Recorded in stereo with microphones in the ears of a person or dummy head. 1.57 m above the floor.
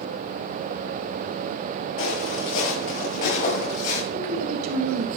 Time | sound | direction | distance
2.0 | footsteps | 40° left (ahead or behind) | 7 m
4.1 | a woman speaking | 80° right | 2.5 m